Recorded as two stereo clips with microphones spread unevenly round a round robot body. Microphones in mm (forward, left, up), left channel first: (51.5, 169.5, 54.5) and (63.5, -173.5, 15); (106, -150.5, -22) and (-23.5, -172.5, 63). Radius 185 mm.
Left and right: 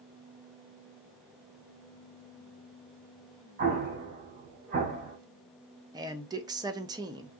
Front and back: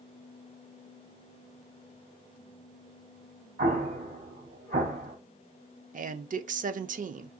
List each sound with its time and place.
3.6 s an explosion: 145° right, 1.6 m
5.9 s a man speaking: 140° right, 0.5 m